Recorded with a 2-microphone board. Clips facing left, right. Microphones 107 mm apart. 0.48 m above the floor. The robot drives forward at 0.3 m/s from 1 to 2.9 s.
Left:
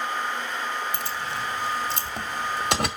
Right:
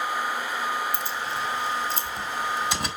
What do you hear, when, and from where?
0.9 s keys jangling: 70° left (ahead or behind), 1.6 m; by 2.9 s 65° left (ahead or behind), 1.7 m